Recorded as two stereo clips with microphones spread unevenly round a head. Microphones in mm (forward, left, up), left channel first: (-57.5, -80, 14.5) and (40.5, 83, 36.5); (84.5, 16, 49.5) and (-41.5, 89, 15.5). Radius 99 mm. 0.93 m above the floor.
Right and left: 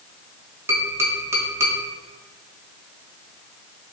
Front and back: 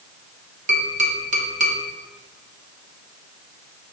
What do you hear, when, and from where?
0.7 s tapping: 140° left, 1.6 m